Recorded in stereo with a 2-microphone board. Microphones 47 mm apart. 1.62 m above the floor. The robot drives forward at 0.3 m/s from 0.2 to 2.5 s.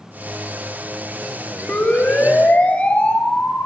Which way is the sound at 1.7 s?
40° left (ahead or behind).